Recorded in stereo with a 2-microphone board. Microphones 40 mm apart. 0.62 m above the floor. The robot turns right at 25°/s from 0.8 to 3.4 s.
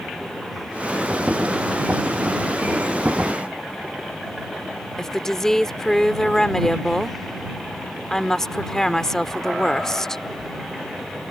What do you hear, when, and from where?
5.0 s a woman speaking: 10° left (ahead or behind)